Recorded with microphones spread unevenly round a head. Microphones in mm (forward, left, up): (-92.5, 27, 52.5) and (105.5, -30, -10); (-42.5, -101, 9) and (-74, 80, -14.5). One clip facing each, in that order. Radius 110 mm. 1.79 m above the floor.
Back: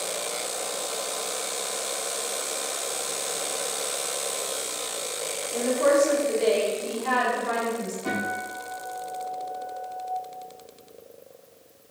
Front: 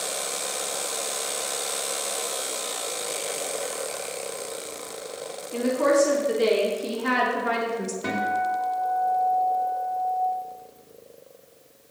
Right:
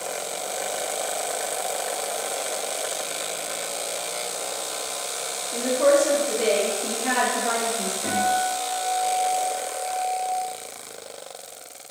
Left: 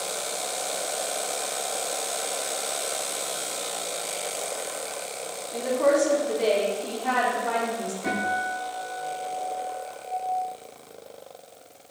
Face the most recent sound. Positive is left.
turn(degrees=-25)